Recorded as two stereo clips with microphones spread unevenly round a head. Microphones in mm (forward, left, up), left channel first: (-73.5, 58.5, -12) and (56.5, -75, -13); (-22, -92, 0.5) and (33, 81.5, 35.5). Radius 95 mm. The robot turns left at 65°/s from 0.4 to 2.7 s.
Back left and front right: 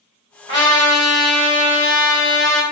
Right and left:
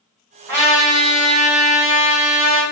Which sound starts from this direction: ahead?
A trumpet, at 0.5 s.